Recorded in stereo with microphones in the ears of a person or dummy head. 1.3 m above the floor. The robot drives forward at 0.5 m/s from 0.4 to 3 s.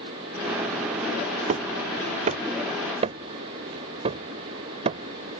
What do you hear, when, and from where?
1.5 s hammering: 45° right (ahead or behind); by 5.4 s 35° right (ahead or behind)